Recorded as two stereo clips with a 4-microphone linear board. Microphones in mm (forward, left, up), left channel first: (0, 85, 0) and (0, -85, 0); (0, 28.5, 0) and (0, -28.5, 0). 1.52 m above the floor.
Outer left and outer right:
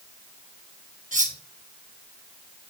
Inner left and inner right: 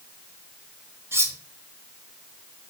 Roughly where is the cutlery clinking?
Right.